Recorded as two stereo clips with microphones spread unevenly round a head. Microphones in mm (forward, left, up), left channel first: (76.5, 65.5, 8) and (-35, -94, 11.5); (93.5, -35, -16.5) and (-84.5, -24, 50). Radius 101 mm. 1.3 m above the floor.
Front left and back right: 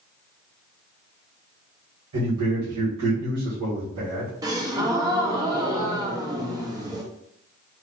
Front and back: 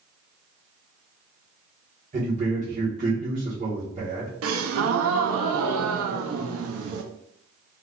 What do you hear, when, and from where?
2.1 s a man speaking: 130° right, 1.4 m
4.4 s a gasp: 165° left, 0.5 m